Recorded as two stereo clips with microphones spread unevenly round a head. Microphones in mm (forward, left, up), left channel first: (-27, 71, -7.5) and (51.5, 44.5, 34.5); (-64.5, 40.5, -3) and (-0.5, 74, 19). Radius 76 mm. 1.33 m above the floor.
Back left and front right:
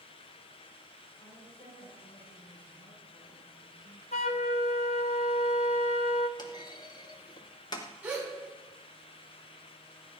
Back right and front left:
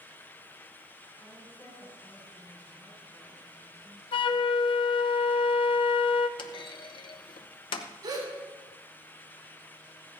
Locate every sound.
1.2 s a woman speaking: 135° left, 6 m
4.1 s a flute: 155° right, 0.7 m
6.4 s a clunk: 145° right, 0.9 m
8.0 s a gasp: 45° left, 5.5 m